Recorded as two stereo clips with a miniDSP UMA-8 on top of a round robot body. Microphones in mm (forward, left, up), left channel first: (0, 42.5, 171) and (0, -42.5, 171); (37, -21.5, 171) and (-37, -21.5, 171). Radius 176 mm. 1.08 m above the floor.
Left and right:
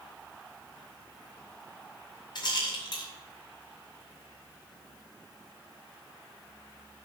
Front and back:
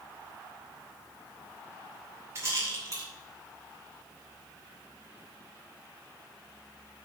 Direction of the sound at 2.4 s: 125° left.